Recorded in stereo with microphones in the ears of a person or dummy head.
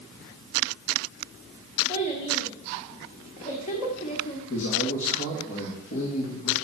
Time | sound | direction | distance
1.9 | a child speaking | 40° left (ahead or behind) | 1.5 m
4.5 | a man speaking | 65° left (ahead or behind) | 2 m